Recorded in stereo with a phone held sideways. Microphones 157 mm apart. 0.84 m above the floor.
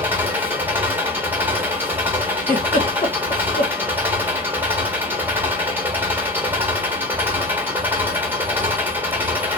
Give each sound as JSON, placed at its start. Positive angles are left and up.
{"t": 0.0, "sound": "an engine running", "side_deg": -15, "distance_m": 1.2}
{"t": 2.4, "sound": "a giggle", "side_deg": 50, "distance_m": 1.0}